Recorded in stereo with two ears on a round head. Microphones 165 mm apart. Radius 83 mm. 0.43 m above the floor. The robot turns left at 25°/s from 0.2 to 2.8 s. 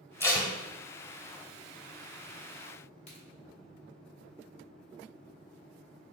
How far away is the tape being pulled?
About 0.8 m.